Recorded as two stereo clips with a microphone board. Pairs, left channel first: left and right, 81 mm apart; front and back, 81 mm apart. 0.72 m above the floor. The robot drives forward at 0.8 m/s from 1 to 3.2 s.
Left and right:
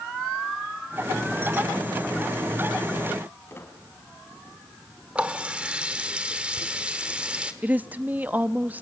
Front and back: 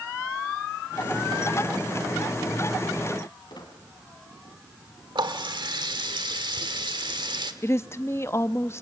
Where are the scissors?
I don't hear scissors.